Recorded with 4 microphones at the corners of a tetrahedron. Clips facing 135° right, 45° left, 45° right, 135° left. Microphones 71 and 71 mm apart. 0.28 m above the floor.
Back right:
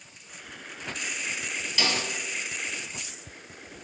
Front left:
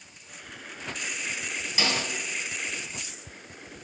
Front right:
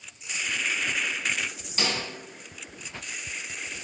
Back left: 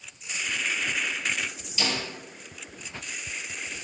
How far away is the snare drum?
About 2.5 m.